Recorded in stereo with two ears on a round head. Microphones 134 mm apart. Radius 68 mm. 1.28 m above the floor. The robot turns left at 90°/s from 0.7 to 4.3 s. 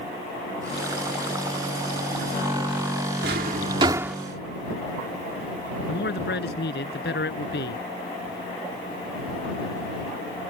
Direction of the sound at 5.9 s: 75° left (ahead or behind).